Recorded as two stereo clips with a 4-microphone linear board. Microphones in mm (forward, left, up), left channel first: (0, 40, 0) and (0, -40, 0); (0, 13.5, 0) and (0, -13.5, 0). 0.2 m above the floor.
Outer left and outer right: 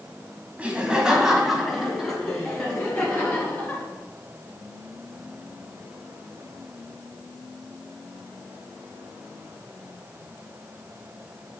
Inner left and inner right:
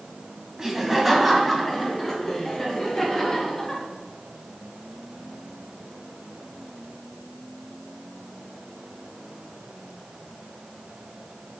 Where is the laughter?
15° right (ahead or behind), 1.4 m; by 3.8 s 20° left (ahead or behind), 2.5 m.